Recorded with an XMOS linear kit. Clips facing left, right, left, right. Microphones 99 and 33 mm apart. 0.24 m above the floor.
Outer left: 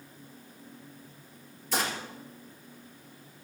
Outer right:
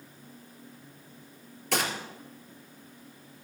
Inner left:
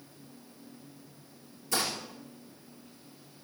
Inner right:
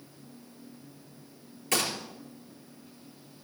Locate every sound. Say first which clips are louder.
1.7 s a gunshot: outer right 1 dB, inner right 2 dB; 70° right (ahead or behind), 3.5 m